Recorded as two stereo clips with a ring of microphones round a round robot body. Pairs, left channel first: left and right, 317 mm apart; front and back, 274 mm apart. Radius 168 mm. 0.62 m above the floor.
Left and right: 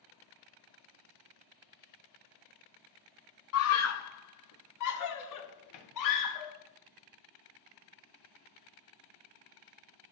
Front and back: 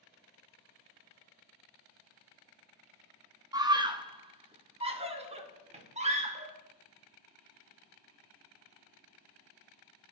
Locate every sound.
3.5 s a scream: 110° left, 1.2 m; by 6.5 s 115° left, 2.5 m